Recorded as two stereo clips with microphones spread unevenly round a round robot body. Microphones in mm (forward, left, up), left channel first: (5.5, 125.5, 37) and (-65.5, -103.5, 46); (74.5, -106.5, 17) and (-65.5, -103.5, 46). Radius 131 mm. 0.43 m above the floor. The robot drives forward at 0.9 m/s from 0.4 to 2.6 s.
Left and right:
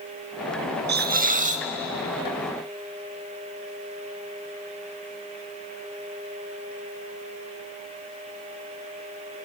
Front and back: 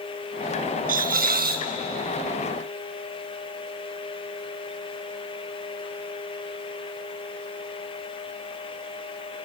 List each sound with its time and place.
0.9 s a hiss: 155° right, 0.6 m; by 1.7 s 170° right, 1.2 m